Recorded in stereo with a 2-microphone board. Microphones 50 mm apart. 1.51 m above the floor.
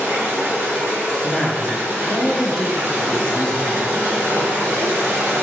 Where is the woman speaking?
10° left (ahead or behind), 1.0 m.